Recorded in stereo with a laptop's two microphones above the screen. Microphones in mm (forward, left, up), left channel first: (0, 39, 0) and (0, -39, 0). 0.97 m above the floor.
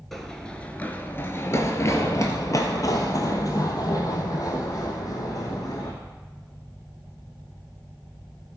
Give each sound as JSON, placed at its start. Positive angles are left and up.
{"t": 0.1, "sound": "running footsteps", "side_deg": 5, "distance_m": 1.0}